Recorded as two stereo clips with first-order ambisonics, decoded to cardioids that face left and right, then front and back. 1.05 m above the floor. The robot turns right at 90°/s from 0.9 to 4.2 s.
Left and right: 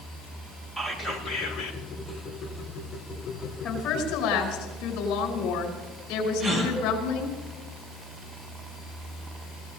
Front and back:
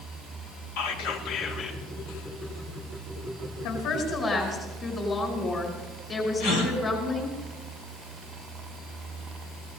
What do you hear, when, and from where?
0.8 s whispering: straight ahead, 2 m; by 1.8 s 80° left, 2 m
3.6 s a woman speaking: 15° left, 4 m; by 7.4 s 65° left, 4 m
6.4 s a gasp: 30° right, 2.5 m